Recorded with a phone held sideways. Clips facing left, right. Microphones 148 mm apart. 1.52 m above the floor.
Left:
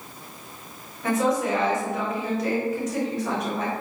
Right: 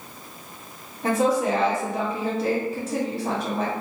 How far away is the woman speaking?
About 1.4 m.